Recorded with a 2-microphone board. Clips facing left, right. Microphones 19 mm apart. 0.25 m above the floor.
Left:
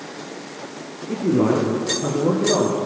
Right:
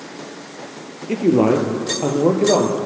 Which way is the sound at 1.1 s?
80° right.